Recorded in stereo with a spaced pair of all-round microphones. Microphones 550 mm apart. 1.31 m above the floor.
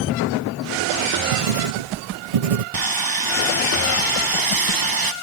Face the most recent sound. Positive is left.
turn(degrees=-40)  # may be behind; listen again after turning